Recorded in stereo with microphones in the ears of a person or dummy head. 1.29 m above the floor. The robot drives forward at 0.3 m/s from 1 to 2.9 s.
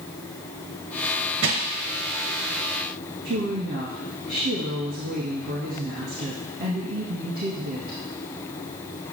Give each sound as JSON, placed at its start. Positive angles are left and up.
{"t": 1.4, "sound": "crushing", "side_deg": -60, "distance_m": 0.9}
{"t": 3.2, "sound": "a woman speaking", "side_deg": -45, "distance_m": 1.9}